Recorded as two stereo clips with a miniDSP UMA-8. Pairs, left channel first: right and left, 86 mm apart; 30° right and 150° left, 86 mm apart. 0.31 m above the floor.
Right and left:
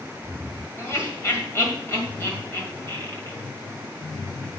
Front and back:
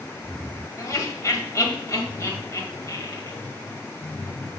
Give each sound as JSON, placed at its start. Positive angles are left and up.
{"t": 0.8, "sound": "laughter", "azimuth_deg": -55, "distance_m": 2.0}